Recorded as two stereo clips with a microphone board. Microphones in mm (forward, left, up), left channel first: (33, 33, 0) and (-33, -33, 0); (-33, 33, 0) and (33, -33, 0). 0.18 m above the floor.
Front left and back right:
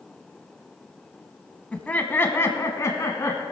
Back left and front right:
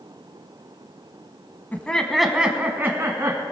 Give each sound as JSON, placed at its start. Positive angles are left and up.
{"t": 1.7, "sound": "laughter", "azimuth_deg": 100, "distance_m": 1.1}